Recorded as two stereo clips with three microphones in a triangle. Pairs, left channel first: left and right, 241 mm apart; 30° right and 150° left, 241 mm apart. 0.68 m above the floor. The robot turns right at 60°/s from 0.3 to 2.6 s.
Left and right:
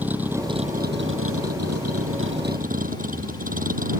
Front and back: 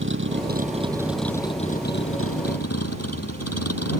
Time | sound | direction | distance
0.0 | a vehicle | 175° right | ?